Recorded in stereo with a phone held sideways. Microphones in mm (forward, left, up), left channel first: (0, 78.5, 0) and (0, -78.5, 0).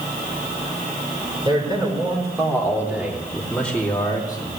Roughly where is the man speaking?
Right.